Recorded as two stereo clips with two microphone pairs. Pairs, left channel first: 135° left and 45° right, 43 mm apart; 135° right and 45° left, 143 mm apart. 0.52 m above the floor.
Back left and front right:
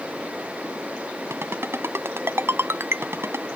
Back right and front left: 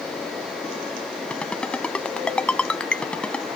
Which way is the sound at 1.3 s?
55° right.